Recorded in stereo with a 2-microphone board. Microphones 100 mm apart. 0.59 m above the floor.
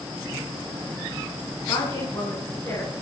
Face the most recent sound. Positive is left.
turn(degrees=35)  # may be behind; listen again after turning